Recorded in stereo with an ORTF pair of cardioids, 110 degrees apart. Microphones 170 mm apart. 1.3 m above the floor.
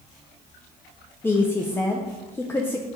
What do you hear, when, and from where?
1.2 s a woman speaking: 15° left, 0.6 m